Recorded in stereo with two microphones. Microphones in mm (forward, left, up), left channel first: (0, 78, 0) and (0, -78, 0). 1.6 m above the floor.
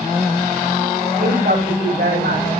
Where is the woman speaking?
65° right (ahead or behind), 8 m.